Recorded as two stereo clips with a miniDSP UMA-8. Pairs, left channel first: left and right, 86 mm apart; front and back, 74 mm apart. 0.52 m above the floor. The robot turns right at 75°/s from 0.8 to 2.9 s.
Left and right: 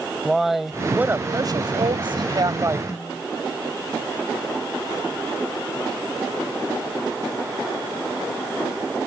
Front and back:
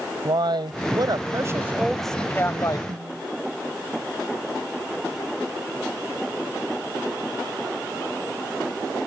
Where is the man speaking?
Straight behind; by 2.8 s 30° right.